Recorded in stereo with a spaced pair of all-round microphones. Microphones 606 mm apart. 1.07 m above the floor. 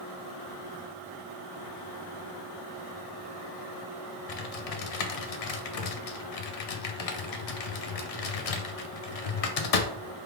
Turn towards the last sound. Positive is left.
turn(degrees=70)  # may be behind; listen again after turning